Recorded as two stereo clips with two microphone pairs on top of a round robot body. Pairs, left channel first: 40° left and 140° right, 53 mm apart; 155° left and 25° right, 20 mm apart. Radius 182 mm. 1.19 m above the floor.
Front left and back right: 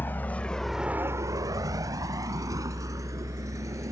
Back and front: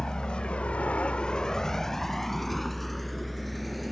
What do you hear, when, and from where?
0.0 s a vehicle: 100° left; by 3.9 s 115° right